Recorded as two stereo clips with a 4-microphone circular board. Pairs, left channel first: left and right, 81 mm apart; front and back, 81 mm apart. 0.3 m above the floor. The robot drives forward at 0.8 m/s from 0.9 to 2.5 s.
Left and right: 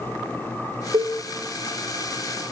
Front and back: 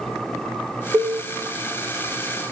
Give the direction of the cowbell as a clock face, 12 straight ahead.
4 o'clock.